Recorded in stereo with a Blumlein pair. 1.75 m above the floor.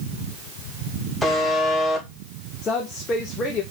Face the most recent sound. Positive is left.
turn(degrees=25)